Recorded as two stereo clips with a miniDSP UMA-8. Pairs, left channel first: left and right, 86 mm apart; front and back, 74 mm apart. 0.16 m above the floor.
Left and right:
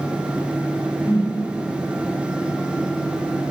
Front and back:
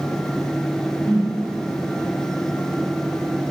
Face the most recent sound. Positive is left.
turn(degrees=80)